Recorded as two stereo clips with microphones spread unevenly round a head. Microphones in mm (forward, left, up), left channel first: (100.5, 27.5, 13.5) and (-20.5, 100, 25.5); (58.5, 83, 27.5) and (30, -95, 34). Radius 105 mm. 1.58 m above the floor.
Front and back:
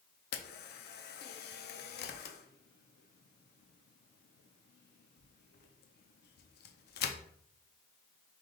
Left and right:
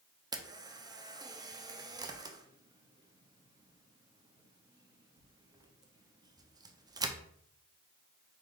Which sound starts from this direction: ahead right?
A camera shutter, at 0.3 s.